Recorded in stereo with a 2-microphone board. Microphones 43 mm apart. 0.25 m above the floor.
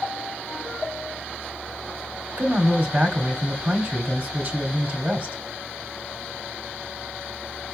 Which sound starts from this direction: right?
A man speaking, at 2.4 s.